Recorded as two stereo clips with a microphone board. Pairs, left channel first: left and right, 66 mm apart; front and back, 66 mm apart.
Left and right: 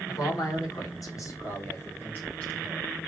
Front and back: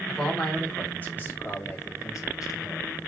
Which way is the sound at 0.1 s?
85° left.